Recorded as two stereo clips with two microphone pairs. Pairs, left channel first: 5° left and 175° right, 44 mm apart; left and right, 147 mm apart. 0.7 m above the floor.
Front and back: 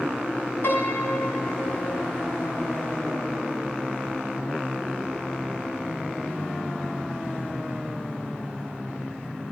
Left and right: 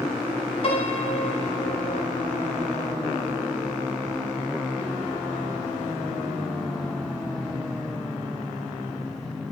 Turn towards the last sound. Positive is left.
turn(degrees=40)